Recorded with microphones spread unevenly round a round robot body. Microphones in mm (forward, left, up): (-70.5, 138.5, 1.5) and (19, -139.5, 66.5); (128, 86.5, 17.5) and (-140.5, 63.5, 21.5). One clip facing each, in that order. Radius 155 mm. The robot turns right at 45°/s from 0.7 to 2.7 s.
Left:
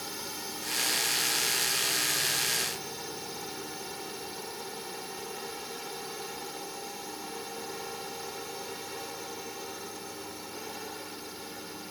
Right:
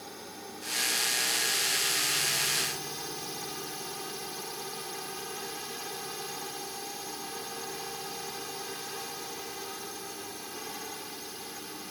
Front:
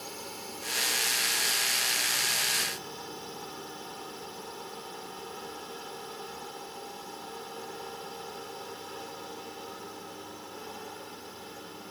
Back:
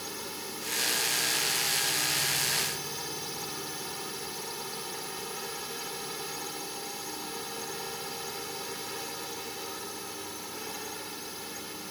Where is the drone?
140° left; by 11.9 s 130° right.